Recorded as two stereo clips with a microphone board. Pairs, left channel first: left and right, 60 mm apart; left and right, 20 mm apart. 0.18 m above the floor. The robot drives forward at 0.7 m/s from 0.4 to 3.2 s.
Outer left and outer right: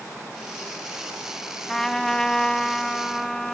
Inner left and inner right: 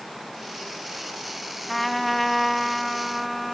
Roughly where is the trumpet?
Centre.